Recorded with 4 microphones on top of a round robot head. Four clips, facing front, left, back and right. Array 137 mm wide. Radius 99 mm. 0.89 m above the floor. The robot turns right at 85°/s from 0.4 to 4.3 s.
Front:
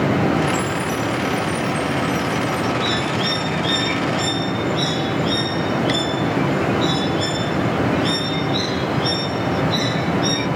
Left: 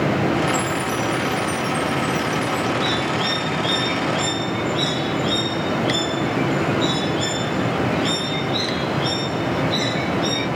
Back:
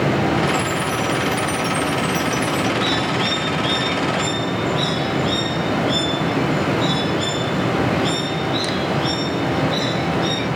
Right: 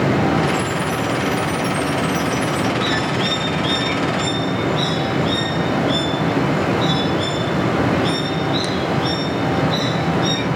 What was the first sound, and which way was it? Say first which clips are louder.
A chime: right 1 dB, back 1 dB; 85° left.